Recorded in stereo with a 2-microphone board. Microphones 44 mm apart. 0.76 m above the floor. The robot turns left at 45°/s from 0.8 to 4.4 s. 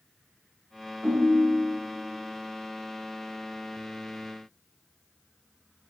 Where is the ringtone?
130° right, 1.3 m; by 1.8 s 165° right, 1.3 m.